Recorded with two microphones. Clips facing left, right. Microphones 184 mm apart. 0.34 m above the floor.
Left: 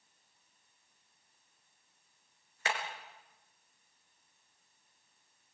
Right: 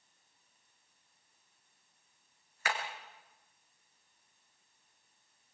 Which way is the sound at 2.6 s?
25° left (ahead or behind).